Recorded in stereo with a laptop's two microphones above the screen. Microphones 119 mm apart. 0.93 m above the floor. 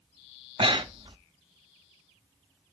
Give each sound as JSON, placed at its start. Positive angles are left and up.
{"t": 0.6, "sound": "breathing", "side_deg": -45, "distance_m": 0.5}